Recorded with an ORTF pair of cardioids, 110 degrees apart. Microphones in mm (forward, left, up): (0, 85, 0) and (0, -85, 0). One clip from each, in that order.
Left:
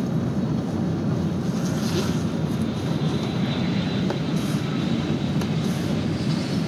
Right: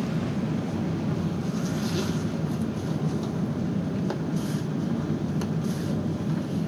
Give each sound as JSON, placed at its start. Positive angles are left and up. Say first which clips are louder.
{"t": 0.0, "sound": "a machine running", "louder": "left 3 dB", "azimuth_deg": 20, "distance_m": 0.8}